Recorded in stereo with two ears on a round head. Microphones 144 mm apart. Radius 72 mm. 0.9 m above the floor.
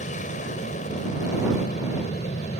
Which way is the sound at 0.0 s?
50° left (ahead or behind).